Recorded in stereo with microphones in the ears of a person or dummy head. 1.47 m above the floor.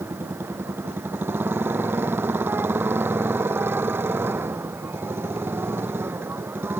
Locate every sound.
0.0 s a motorcycle: 10° right (ahead or behind)